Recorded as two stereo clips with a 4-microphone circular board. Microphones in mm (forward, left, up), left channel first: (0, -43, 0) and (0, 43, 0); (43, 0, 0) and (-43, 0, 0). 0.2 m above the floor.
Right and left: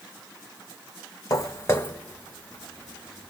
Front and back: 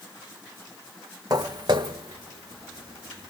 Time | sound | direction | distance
1.3 | footsteps | 135° right | 0.7 m